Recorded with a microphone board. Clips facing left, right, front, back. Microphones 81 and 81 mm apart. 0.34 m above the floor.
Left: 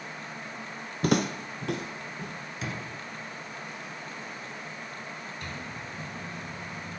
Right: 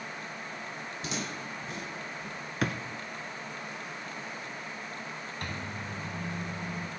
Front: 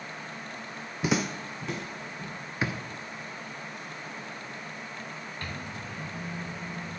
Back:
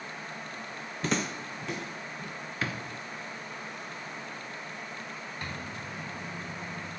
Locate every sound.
1.0 s footsteps: 75° left, 0.6 m; by 2.3 s 90° left, 2 m
2.6 s a drawer: 70° right, 1.0 m
5.4 s a microwave: 110° right, 2 m